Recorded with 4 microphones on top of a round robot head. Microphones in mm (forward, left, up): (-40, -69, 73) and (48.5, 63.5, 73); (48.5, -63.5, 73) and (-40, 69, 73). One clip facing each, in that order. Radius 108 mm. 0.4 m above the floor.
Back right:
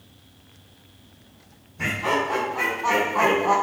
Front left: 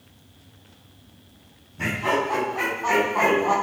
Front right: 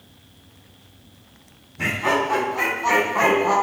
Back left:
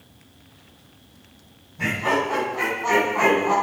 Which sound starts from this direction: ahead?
Laughter, at 1.8 s.